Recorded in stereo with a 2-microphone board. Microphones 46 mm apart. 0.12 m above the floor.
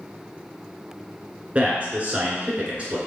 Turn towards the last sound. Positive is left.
turn(degrees=-30)  # may be behind; listen again after turning